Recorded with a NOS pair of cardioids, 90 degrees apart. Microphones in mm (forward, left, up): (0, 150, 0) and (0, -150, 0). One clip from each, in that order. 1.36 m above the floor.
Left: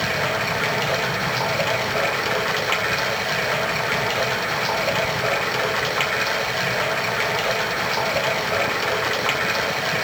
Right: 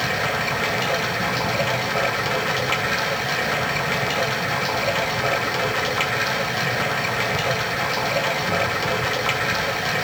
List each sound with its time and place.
0.0 s running water: 10° left, 1.8 m